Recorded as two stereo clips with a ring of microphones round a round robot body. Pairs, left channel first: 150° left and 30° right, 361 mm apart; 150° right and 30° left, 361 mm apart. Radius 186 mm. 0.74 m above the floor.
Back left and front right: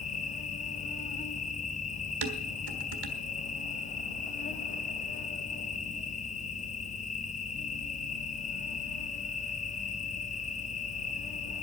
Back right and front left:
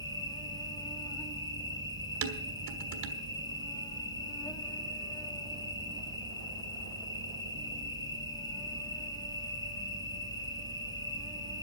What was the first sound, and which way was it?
An insect, 155° left.